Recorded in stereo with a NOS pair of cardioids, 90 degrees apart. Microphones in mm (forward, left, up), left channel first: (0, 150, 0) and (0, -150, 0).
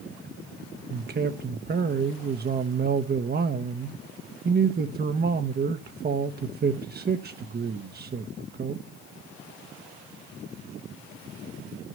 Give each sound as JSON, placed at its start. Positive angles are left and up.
{"t": 0.9, "sound": "a man speaking", "azimuth_deg": -35, "distance_m": 0.9}